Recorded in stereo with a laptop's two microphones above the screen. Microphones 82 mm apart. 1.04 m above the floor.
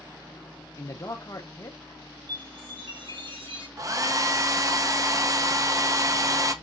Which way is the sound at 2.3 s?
75° right (ahead or behind).